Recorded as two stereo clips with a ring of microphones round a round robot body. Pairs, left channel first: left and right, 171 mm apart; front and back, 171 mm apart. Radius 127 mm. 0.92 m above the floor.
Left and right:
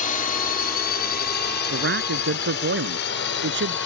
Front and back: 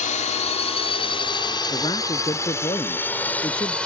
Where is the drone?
45° left; by 3.9 s 85° left.